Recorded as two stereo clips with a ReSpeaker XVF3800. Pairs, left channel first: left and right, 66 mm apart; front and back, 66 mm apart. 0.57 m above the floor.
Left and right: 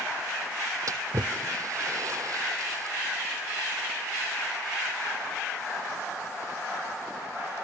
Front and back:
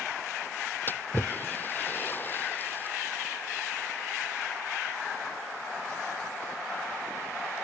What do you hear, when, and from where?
0.9 s a splash: 55° right